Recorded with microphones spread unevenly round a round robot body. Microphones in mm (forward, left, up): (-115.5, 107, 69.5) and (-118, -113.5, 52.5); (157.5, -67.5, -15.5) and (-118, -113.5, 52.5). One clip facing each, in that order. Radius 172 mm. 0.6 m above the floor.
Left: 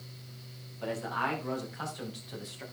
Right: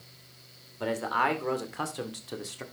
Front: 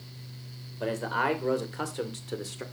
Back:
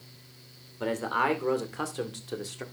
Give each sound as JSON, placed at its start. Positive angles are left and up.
{"t": 0.8, "sound": "a man speaking", "azimuth_deg": -90, "distance_m": 2.5}